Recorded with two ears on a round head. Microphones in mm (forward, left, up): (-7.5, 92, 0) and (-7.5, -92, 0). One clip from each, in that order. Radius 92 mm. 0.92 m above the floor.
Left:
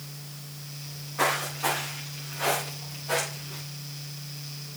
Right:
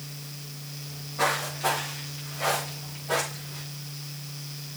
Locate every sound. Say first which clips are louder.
0.8 s footsteps: even; 50° left (ahead or behind), 7 m; by 3.6 s 70° left (ahead or behind), 6.5 m